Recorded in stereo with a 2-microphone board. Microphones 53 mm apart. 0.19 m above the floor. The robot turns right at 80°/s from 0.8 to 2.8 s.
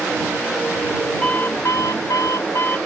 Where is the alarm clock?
25° left; by 2.8 s 150° left.